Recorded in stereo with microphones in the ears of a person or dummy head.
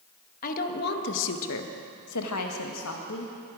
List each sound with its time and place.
0.4 s a woman speaking: 40° left (ahead or behind), 1.4 m; by 3.3 s 60° left (ahead or behind), 1.7 m